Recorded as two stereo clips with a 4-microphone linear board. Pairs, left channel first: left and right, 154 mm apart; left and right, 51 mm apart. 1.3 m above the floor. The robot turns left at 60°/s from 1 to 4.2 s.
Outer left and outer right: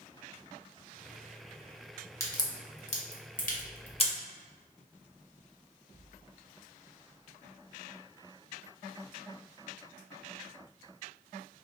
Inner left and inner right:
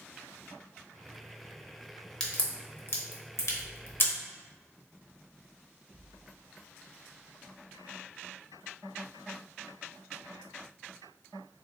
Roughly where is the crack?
Centre.